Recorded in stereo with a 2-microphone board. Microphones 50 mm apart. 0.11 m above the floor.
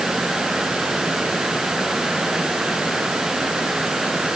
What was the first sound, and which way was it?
Only background noise.